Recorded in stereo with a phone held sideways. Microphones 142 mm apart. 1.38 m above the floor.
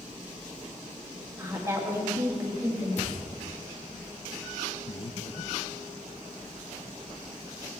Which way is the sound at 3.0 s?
55° left (ahead or behind).